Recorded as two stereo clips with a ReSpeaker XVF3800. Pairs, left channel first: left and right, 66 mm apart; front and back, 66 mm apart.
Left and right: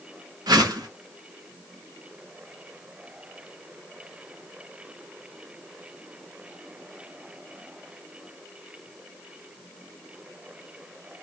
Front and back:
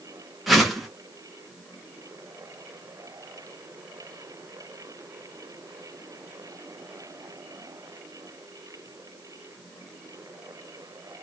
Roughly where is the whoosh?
Right.